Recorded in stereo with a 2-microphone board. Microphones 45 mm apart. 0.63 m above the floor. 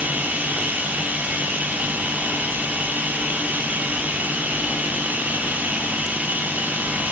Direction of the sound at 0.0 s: 40° right (ahead or behind).